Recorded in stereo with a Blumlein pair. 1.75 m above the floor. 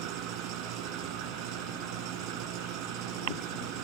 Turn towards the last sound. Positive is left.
turn(degrees=-40)